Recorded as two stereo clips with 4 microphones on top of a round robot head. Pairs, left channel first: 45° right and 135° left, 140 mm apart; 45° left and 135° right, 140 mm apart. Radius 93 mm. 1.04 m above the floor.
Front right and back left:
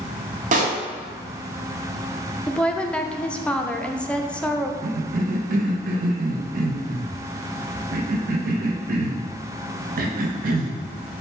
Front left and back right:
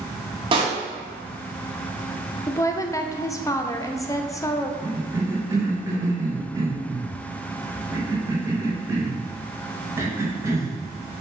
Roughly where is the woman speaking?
Ahead left.